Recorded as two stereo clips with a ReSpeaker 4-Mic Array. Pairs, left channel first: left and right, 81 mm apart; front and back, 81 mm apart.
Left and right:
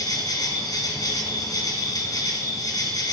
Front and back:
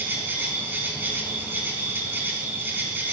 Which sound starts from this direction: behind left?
An insect, at 0.0 s.